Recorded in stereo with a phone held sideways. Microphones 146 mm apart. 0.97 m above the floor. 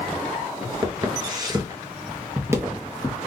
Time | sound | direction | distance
0.8 | footsteps | 30° right (ahead or behind) | 1.1 m